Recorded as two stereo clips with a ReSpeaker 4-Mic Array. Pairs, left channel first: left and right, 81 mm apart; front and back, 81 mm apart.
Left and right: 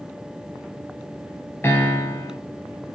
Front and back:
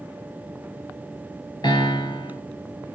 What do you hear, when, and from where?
1.6 s a piano: 30° left, 2.5 m